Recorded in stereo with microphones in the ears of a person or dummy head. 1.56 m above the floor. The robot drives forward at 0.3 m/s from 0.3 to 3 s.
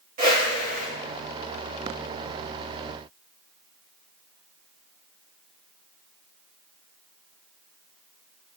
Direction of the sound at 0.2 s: 45° right (ahead or behind).